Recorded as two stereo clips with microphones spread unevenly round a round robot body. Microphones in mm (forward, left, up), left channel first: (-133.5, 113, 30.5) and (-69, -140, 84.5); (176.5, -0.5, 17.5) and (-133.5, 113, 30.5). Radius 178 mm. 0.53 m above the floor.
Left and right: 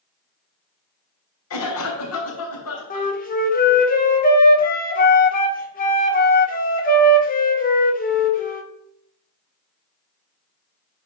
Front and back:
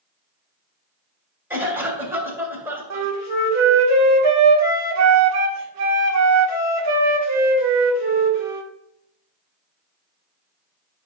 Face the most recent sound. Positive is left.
turn(degrees=140)